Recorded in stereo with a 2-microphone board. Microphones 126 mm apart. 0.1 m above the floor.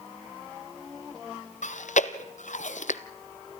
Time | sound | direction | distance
1.6 | chewing | 75° left (ahead or behind) | 0.7 m